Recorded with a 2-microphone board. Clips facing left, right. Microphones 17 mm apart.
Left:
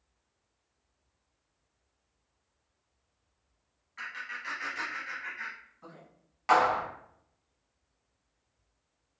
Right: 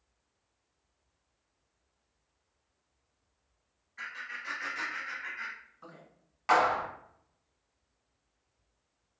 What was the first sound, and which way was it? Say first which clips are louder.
Laughter: left 1 dB; 30° left (ahead or behind).